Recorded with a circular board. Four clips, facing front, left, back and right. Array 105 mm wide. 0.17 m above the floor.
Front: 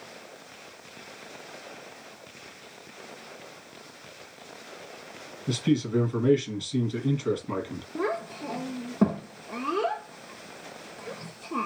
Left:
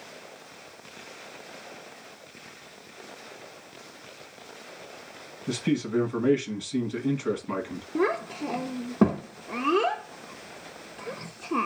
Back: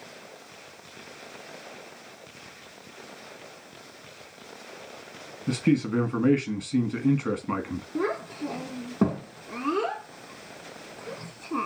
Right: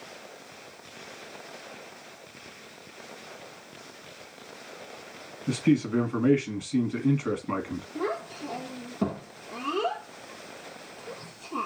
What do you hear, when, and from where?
5.5 s a man speaking: 160° right, 1.4 m
8.0 s a child speaking: 95° left, 0.9 m